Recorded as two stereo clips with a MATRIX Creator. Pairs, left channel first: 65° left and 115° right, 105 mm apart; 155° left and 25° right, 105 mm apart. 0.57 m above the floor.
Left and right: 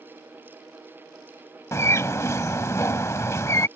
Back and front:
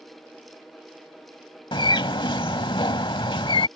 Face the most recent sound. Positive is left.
turn(degrees=125)